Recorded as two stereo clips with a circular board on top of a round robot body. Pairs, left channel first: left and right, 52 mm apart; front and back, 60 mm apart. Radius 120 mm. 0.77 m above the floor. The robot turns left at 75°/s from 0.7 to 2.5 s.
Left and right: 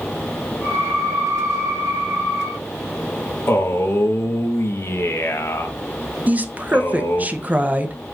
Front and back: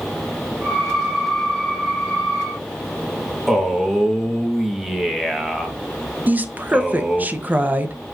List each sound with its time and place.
3.5 s a man speaking: 95° left, 1.0 m
6.3 s a woman speaking: 130° right, 0.8 m